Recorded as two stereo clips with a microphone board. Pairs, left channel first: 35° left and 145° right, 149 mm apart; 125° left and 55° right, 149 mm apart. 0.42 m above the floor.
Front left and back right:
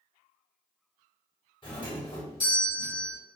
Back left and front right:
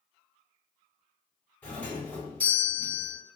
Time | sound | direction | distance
1.6 | a doorbell | 55° left | 1.5 m